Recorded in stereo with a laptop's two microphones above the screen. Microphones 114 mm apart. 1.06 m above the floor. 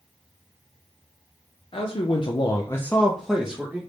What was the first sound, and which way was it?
A man speaking, 55° left (ahead or behind).